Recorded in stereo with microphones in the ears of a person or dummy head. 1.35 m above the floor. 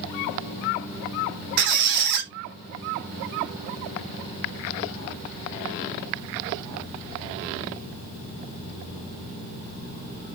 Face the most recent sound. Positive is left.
turn(degrees=-60)  # may be behind; listen again after turning